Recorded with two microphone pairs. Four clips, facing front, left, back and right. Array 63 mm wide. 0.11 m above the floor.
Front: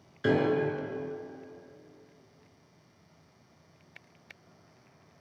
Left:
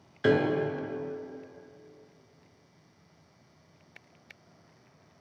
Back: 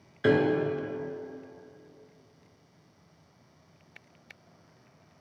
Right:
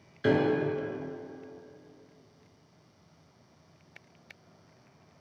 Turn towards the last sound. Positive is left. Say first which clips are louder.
# left 1 dB, back 2 dB
turn(degrees=135)